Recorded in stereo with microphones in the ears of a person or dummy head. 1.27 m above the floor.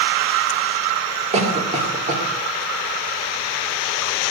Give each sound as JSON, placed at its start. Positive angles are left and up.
{"t": 1.3, "sound": "a cough", "side_deg": -40, "distance_m": 3.0}